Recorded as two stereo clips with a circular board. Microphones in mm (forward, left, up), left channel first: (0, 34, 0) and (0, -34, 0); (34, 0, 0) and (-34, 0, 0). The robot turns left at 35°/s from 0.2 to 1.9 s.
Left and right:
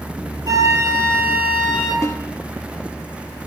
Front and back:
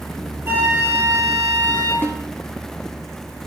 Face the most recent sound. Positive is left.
turn(degrees=55)